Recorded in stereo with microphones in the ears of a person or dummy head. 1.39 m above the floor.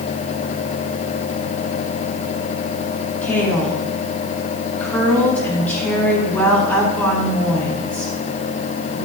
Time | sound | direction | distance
3.2 | a woman speaking | 10° left (ahead or behind) | 5.5 m